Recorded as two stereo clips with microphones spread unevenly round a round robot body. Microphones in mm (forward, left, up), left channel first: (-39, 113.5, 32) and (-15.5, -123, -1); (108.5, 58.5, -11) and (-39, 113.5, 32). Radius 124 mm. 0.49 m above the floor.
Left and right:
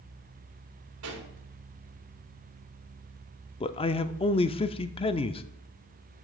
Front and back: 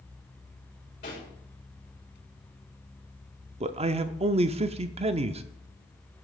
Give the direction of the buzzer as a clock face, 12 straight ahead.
I don't hear a buzzer.